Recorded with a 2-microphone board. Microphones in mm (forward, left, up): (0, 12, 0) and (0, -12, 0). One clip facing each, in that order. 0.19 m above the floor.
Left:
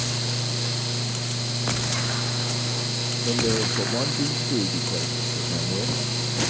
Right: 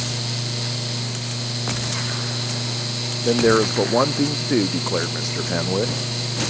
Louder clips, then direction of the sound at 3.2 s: Right 8 dB; 85° right.